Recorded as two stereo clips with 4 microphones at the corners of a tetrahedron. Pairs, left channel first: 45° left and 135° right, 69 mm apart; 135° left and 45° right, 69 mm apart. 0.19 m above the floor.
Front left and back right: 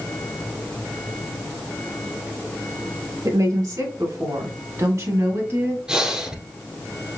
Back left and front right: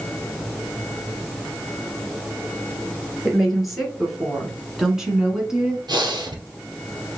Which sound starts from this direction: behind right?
A woman speaking, at 3.2 s.